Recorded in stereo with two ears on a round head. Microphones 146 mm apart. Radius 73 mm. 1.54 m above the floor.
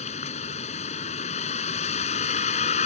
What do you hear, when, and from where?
0.0 s a vehicle: 40° left (ahead or behind)